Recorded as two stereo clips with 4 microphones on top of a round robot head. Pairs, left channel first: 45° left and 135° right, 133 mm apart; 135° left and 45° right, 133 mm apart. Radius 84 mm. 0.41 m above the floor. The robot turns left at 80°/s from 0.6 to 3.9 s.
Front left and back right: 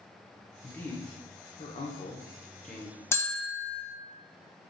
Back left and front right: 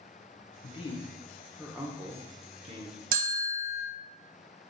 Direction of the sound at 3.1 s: 25° right.